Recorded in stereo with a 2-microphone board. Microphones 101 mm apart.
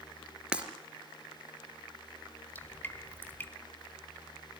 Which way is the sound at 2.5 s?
20° left (ahead or behind).